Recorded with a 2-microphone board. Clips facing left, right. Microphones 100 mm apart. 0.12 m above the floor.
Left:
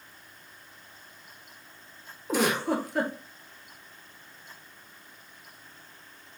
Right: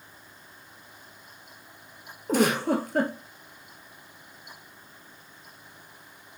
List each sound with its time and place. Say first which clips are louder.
2.3 s a giggle: right 3 dB; 55° right (ahead or behind), 0.7 m